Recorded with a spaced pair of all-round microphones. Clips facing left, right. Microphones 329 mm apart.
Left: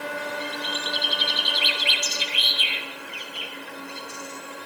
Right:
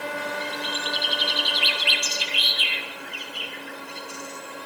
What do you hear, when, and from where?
0.4 s a bird: 5° left (ahead or behind), 3 m